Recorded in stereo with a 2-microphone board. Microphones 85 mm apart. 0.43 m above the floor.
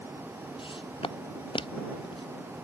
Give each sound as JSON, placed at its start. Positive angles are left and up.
{"t": 0.6, "sound": "footsteps", "side_deg": 80}